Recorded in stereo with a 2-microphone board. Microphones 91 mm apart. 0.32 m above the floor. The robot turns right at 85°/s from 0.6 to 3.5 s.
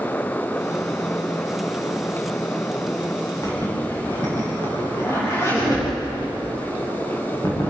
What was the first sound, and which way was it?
A zipper, 35° left (ahead or behind).